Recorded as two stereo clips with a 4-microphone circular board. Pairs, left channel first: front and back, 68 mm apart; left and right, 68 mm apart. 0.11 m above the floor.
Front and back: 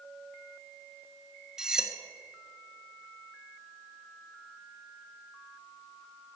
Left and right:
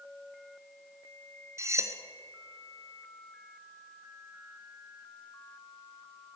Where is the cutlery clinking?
105° right, 1.1 m.